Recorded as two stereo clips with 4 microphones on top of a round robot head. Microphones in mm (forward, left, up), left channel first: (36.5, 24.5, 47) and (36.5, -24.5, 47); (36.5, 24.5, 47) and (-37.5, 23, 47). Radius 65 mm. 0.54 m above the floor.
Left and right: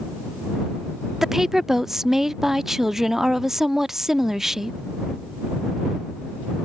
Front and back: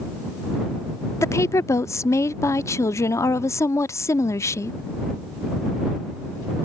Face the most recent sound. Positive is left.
turn(degrees=-10)